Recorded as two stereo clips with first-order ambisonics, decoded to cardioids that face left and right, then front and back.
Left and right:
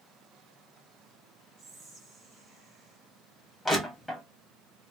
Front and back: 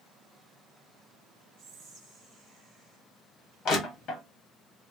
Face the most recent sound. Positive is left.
turn(degrees=15)